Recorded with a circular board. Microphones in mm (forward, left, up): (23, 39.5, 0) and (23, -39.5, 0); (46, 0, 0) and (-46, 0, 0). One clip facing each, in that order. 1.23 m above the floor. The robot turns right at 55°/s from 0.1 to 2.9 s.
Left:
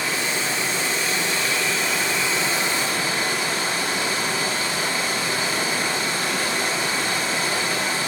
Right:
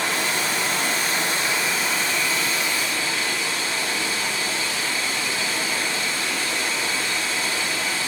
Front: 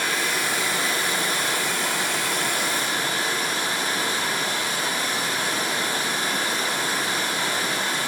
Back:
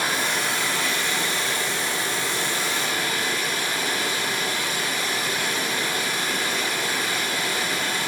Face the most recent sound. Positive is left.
turn(degrees=50)